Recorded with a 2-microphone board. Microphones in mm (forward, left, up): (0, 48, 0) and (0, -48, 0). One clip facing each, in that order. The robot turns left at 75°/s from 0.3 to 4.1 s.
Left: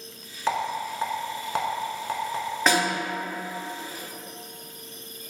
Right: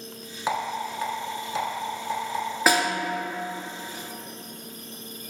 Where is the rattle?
15° right (ahead or behind), 0.6 m; by 2.4 s 45° left (ahead or behind), 0.6 m.